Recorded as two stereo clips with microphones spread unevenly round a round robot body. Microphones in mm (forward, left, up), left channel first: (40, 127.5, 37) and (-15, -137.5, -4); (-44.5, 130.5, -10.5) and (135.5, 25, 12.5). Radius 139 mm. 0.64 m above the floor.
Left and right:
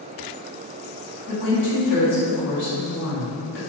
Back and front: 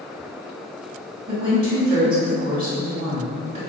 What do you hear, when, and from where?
1.3 s a woman speaking: 30° left, 1.3 m